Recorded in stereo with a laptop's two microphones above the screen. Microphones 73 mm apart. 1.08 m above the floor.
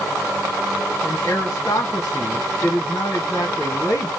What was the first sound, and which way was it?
A man speaking, 50° left (ahead or behind).